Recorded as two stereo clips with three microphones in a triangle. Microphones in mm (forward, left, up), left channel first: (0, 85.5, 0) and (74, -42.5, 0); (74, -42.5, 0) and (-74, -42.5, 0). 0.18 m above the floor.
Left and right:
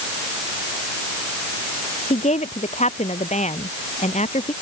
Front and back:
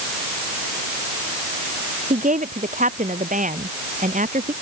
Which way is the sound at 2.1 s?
155° left.